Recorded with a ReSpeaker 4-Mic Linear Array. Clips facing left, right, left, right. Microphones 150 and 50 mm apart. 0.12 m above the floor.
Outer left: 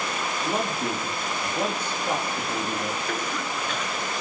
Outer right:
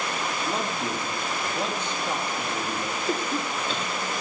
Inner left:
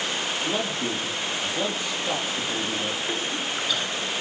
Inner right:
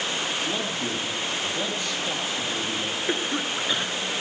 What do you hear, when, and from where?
0.5 s a man speaking: 10° left (ahead or behind), 3 m
3.1 s a cough: 30° right (ahead or behind), 1.3 m